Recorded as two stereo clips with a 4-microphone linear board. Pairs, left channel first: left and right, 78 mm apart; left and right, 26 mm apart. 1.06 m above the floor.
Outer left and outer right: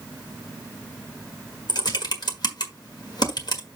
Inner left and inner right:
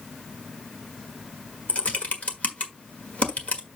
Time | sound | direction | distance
1.7 | typing on a keyboard | 60° left (ahead or behind) | 1.5 m